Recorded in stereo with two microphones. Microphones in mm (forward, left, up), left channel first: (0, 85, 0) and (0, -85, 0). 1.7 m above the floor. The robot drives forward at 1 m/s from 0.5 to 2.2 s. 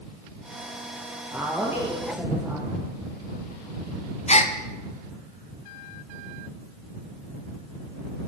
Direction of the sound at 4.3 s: 40° left (ahead or behind).